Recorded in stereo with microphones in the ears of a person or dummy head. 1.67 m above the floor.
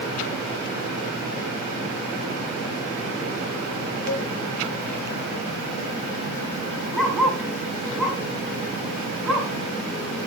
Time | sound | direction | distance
4.1 | a cowbell | 60° left (ahead or behind) | 2.5 m
6.9 | a dog barking | 10° left (ahead or behind) | 6 m